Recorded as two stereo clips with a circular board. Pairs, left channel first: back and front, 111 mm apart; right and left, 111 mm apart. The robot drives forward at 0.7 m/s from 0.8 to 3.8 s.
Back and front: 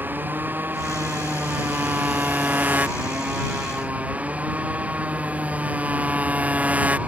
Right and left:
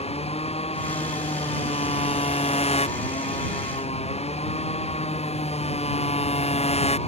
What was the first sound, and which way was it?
A motorcycle, 75° right.